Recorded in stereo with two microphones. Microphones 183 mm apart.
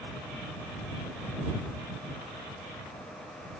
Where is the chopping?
I don't hear chopping.